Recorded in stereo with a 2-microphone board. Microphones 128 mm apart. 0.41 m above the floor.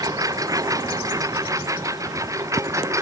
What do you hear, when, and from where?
0.0 s a lawn mower: 25° right (ahead or behind)